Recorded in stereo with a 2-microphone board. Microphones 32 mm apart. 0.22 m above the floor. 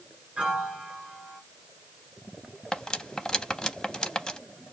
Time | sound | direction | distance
0.4 | a piano | 35° right (ahead or behind) | 1.7 m
2.7 | cutlery clinking | 25° left (ahead or behind) | 0.6 m